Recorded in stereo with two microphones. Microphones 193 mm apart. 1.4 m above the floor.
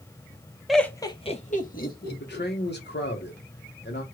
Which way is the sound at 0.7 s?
Centre (ahead or behind).